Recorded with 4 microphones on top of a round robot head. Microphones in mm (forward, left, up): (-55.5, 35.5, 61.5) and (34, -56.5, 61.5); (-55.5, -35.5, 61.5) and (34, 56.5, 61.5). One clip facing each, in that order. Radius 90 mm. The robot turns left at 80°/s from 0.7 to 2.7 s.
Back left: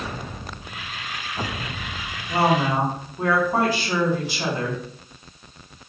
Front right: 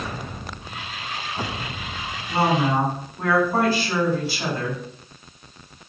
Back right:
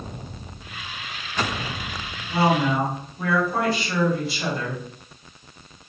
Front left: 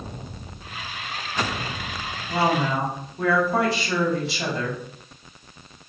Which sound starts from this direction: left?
A woman speaking, at 2.3 s.